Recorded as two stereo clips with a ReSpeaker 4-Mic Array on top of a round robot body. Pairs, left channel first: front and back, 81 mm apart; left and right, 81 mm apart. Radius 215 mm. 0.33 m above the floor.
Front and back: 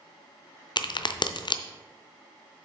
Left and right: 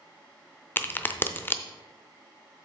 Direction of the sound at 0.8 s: 25° left.